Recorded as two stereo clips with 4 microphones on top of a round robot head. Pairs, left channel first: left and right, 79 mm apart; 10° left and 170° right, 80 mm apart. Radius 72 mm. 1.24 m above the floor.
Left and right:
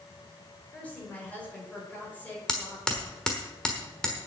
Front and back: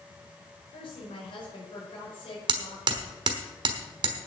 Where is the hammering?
175° left, 1.2 m.